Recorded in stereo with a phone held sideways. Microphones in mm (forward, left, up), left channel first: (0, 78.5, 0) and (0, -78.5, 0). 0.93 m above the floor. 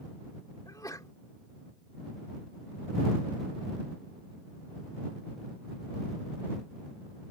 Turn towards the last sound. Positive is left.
turn(degrees=25)  # may be behind; listen again after turning